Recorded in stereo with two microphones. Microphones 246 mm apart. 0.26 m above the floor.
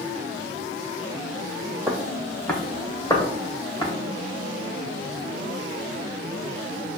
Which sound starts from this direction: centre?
Footsteps, at 1.9 s.